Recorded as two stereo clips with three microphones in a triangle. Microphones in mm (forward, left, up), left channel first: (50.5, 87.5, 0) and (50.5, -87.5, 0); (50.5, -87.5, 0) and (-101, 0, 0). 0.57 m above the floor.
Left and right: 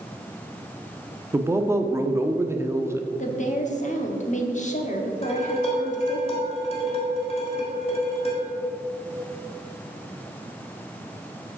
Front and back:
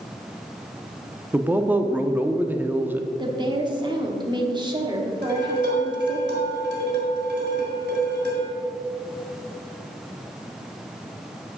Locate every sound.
1.3 s a man speaking: 145° right, 0.6 m
3.2 s a woman speaking: 100° left, 1.0 m
5.2 s dishes clattering: 145° left, 2.0 m